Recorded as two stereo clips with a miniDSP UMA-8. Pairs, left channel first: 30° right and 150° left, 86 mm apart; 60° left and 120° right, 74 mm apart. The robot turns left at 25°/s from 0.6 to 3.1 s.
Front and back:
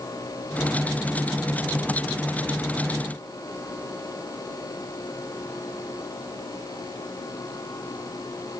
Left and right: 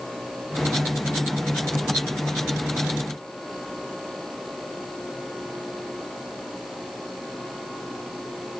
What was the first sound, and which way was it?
Only background noise.